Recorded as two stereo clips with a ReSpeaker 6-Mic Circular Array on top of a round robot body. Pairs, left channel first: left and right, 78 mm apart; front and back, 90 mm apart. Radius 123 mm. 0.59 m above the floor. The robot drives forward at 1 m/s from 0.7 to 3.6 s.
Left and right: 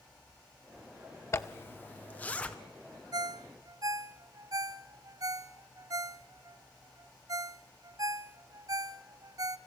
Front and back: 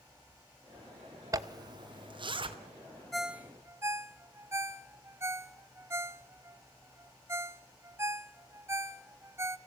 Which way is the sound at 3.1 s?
85° right.